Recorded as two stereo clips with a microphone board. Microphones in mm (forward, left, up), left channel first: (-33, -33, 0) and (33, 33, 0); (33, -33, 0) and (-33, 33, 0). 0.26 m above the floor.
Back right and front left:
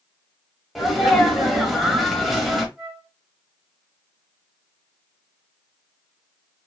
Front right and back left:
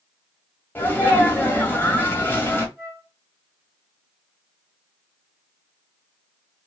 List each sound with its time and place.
0.8 s a sneeze: 45° right, 1.1 m
2.8 s a flute: 110° left, 1.5 m